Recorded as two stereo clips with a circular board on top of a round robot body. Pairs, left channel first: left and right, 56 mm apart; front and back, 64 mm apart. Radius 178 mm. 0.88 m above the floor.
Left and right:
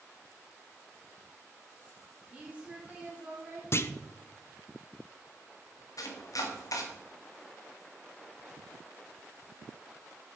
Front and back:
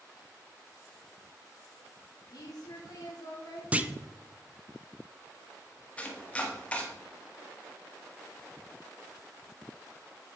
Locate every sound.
2.3 s a woman speaking: 20° right, 3.5 m
3.7 s a clunk: 115° left, 0.8 m
6.0 s chopping: 70° left, 1.5 m